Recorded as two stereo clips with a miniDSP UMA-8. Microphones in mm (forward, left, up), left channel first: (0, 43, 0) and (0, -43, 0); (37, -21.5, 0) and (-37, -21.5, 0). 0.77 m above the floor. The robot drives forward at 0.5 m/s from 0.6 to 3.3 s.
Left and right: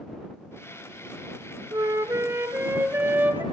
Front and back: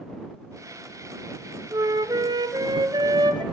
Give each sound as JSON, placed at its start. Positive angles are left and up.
{"t": 1.7, "sound": "a flute", "azimuth_deg": -140, "distance_m": 0.8}